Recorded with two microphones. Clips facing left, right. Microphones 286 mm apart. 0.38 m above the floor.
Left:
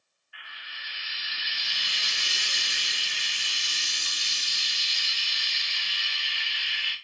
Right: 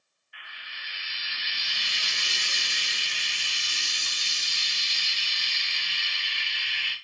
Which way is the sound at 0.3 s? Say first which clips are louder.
Even; 5° left (ahead or behind).